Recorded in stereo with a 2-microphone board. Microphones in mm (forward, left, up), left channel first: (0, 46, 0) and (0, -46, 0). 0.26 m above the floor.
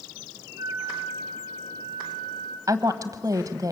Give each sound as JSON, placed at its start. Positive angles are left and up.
{"t": 0.6, "sound": "a flute", "side_deg": -35, "distance_m": 5.5}
{"t": 2.7, "sound": "a woman speaking", "side_deg": -40, "distance_m": 1.3}